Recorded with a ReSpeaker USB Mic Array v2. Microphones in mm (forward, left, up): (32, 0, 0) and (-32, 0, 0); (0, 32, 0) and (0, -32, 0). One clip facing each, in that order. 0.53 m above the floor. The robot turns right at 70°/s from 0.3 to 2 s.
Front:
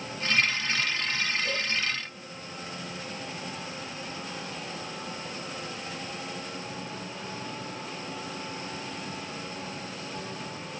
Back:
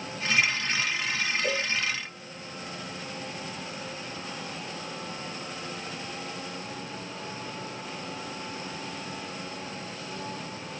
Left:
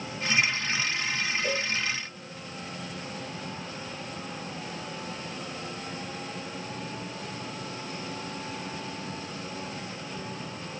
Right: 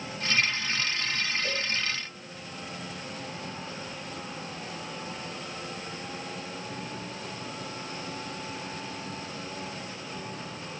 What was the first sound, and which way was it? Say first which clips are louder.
A cowbell: back 2 dB, left 3 dB; 155° left.